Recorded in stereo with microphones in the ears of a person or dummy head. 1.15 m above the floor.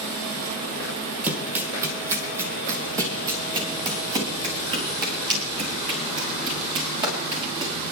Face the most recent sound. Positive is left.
turn(degrees=-30)  # may be behind; listen again after turning